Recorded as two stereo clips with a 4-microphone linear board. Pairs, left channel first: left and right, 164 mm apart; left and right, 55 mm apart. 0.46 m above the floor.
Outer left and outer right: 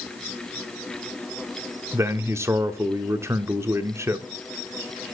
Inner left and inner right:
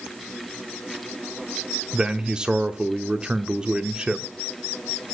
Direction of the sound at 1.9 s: 15° right (ahead or behind).